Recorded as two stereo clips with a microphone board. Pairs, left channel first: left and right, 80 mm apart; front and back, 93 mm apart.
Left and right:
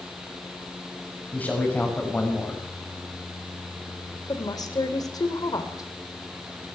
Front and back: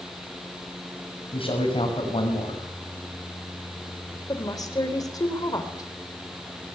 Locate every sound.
1.3 s a man speaking: 20° left, 6 m
4.3 s a woman speaking: 50° left, 3.5 m